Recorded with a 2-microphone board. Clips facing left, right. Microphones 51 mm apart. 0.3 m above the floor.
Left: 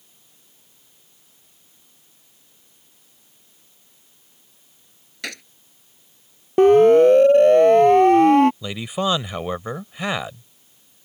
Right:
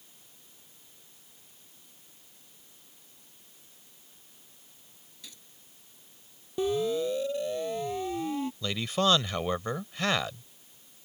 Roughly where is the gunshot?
Left.